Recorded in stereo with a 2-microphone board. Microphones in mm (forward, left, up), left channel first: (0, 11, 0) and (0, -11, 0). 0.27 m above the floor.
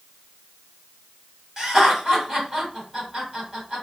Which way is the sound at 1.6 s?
25° right (ahead or behind).